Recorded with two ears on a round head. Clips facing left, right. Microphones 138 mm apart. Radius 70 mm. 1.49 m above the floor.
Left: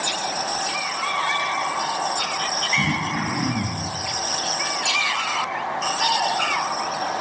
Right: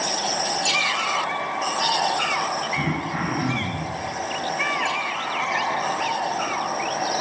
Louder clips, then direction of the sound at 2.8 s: Left 1 dB; 35° right (ahead or behind).